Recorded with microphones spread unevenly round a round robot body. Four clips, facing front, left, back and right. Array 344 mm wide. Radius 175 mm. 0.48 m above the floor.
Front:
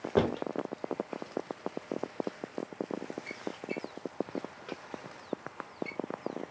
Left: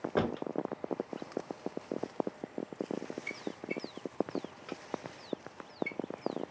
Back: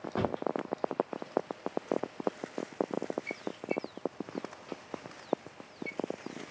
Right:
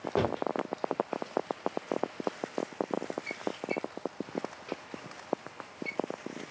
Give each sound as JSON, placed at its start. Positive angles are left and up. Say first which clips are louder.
{"t": 0.2, "sound": "a drawer", "louder": "right 3 dB, front 3 dB", "azimuth_deg": 0, "distance_m": 1.0}